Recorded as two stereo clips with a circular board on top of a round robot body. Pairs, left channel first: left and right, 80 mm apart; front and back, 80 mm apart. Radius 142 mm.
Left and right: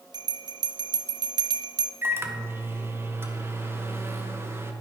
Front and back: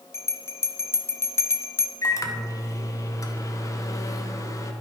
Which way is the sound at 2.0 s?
35° right.